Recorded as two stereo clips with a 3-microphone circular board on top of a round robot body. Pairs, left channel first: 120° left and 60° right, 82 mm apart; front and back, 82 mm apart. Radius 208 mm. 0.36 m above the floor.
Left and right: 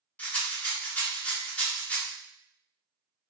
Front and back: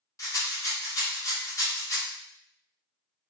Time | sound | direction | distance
0.2 | a rattle | 45° left | 1.0 m